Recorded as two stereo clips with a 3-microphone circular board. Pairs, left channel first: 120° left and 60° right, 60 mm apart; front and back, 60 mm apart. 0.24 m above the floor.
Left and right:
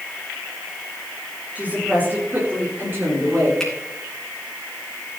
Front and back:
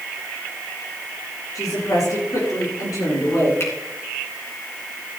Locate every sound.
1.6 s a woman speaking: 5° left, 6.5 m; by 3.5 s 15° right, 7.5 m
3.6 s a finger snap: 40° left, 3 m